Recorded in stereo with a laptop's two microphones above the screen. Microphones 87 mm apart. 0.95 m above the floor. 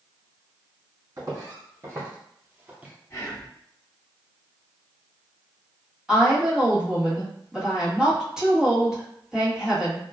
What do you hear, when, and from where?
1.2 s footsteps: 40° right (ahead or behind), 1.8 m; by 2.9 s 15° right (ahead or behind), 0.9 m
3.1 s whispering: 35° left (ahead or behind), 1.5 m
6.1 s a woman speaking: 5° right (ahead or behind), 1.5 m